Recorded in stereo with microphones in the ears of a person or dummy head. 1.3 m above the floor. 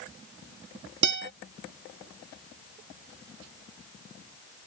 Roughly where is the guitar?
Right.